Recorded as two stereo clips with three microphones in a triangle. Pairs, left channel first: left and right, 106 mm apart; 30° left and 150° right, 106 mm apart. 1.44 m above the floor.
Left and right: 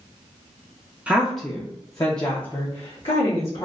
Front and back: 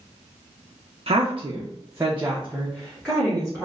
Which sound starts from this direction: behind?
A woman speaking, at 1.1 s.